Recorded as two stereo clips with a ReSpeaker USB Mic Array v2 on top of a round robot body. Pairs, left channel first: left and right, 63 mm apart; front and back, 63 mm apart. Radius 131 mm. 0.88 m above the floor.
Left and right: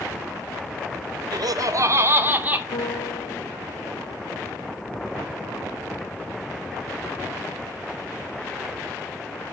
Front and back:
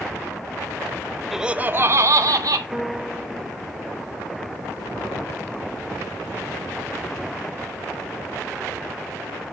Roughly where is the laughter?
Right.